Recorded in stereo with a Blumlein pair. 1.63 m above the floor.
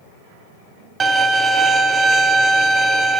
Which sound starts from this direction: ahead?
A violin, at 1.0 s.